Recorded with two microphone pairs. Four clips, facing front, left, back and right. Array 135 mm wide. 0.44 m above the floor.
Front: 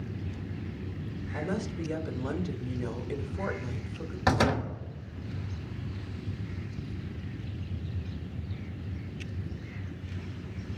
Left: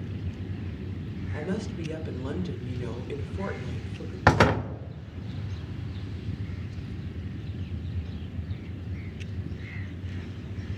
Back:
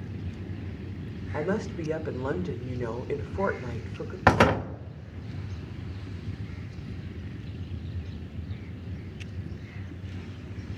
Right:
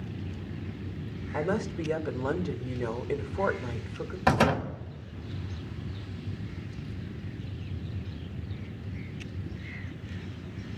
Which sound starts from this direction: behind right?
A woman speaking, at 1.3 s.